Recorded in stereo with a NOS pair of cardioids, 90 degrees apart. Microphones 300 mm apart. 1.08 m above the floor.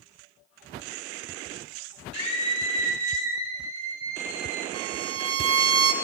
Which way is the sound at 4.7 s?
50° right.